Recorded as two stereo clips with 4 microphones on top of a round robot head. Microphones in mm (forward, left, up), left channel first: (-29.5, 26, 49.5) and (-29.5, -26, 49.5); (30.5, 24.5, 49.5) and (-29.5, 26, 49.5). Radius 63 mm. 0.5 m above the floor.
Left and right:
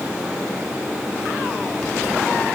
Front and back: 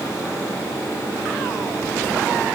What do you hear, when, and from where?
Only background noise.